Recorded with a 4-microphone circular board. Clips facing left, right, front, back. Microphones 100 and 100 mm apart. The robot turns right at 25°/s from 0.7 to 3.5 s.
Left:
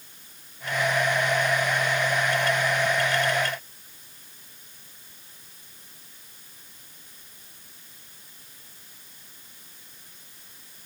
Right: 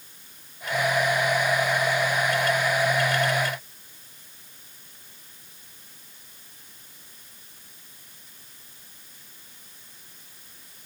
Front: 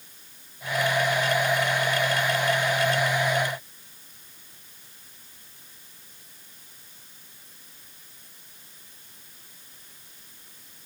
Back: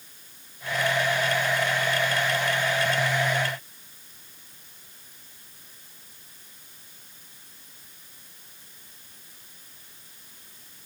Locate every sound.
Only background noise.